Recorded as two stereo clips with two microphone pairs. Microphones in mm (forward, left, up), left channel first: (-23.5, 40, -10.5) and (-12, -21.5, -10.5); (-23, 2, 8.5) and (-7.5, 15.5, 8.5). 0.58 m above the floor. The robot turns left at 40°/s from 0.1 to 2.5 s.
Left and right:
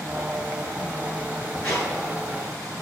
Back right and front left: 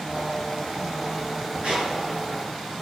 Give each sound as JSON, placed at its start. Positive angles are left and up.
{"t": 1.6, "sound": "a squeak", "azimuth_deg": 30, "distance_m": 5.5}